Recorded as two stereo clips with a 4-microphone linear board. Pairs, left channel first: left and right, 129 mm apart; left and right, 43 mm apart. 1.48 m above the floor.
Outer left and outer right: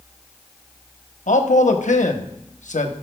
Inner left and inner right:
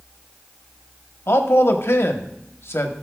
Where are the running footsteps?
No running footsteps in this recording.